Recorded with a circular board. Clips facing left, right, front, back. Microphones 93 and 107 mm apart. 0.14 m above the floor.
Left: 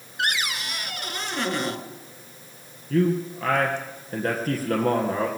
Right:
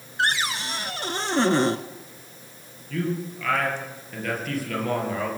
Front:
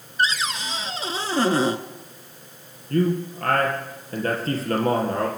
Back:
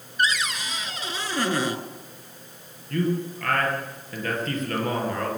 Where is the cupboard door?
45° right, 0.8 m.